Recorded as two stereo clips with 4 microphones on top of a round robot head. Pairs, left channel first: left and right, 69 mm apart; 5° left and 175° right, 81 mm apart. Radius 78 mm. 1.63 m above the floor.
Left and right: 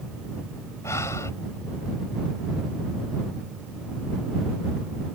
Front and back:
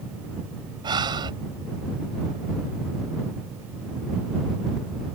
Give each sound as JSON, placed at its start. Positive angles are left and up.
{"t": 0.8, "sound": "breathing", "azimuth_deg": 150}